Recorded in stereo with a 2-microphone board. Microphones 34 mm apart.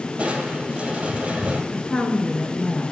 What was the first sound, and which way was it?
Crushing, 35° right (ahead or behind).